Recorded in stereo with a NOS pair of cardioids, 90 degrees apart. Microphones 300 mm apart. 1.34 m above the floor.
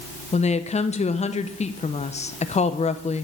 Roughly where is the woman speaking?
Ahead.